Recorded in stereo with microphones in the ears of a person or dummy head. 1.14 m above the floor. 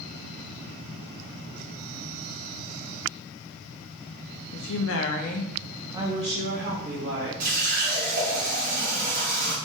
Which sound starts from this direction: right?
A running tap, at 7.4 s.